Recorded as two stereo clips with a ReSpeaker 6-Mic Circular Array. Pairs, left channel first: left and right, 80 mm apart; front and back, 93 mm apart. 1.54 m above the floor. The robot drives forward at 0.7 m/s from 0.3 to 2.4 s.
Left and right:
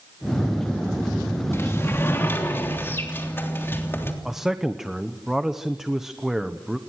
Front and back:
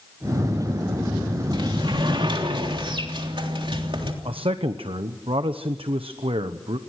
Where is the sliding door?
145° left, 2.5 m; by 4.1 s 155° left, 3.5 m.